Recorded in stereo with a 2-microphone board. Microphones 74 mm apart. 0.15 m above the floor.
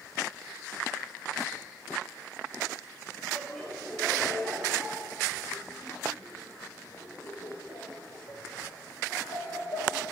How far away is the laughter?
About 3.5 m.